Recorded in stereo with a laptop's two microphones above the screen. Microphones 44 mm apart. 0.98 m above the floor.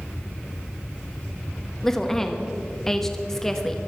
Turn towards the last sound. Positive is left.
turn(degrees=10)  # may be behind; listen again after turning